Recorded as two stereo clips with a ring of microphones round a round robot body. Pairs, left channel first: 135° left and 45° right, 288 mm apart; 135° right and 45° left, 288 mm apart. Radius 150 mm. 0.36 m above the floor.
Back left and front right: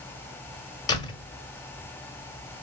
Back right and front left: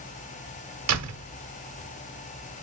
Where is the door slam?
60° left, 1.6 m.